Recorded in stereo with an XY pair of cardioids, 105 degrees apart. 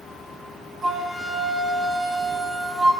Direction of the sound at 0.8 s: 35° right.